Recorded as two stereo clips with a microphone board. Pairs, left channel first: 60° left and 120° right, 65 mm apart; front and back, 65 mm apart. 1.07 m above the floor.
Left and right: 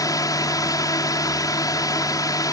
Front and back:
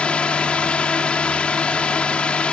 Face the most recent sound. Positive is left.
turn(degrees=70)